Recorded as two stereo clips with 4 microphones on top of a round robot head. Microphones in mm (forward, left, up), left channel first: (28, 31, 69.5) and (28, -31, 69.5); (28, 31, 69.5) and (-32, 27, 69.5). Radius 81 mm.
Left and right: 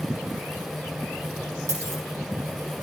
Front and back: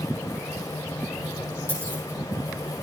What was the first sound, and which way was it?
A dropped coin, 50° right.